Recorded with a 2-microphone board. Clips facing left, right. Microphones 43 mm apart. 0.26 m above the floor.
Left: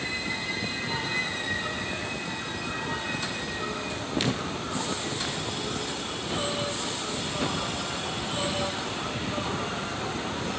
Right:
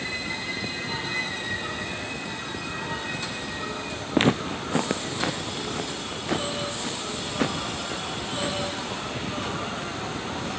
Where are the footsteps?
45° right (ahead or behind), 1.8 m; by 10.1 s 55° right (ahead or behind), 9 m.